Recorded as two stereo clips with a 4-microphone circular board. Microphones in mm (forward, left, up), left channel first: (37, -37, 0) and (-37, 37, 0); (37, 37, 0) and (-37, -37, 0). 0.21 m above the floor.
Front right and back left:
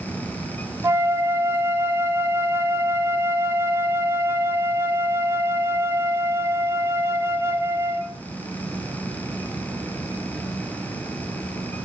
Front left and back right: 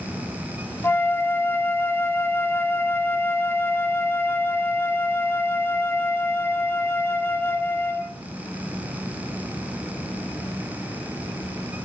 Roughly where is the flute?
Left.